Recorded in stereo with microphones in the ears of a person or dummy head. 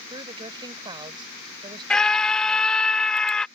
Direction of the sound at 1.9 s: 5° left (ahead or behind).